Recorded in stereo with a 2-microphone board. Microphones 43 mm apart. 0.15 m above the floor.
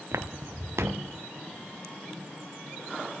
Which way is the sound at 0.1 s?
75° right (ahead or behind).